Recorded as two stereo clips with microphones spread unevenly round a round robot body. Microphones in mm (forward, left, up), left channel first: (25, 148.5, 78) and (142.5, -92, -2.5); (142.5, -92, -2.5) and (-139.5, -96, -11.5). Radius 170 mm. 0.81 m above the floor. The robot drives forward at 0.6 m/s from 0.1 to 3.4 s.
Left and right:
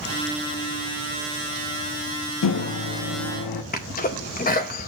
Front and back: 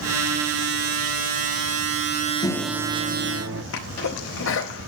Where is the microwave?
80° left, 0.7 m; by 3.6 s 125° left, 0.8 m.